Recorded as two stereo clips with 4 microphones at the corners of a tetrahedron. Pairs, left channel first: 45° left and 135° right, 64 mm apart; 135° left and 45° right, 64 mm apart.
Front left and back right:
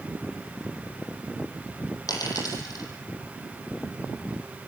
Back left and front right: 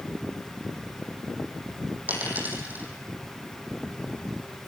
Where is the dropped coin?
20° left, 7 m.